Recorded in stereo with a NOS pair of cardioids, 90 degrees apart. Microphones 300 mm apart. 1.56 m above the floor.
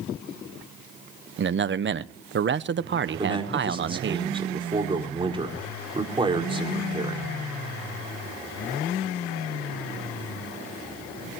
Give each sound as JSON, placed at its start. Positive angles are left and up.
{"t": 1.4, "sound": "a man speaking", "azimuth_deg": -40, "distance_m": 1.0}
{"t": 3.2, "sound": "a man speaking", "azimuth_deg": -15, "distance_m": 4.5}